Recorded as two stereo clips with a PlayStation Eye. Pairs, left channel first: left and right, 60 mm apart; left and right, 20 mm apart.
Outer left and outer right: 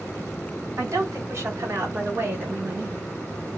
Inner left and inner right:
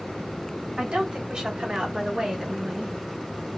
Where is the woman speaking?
55° right (ahead or behind), 1.9 m; by 3.1 s 20° right (ahead or behind), 1.6 m.